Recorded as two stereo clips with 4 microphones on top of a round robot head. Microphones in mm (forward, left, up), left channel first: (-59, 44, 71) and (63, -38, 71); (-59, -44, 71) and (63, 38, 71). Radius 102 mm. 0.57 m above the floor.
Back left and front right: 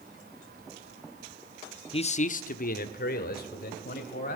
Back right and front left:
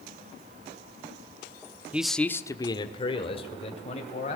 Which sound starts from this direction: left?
A man speaking, at 1.9 s.